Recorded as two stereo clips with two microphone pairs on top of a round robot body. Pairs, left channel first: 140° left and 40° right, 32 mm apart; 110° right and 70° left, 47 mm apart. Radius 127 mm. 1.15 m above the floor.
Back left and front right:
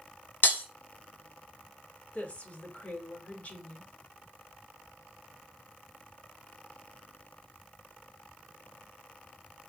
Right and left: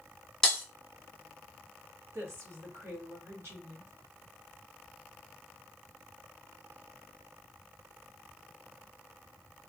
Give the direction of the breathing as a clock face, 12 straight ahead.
No breathing in this recording.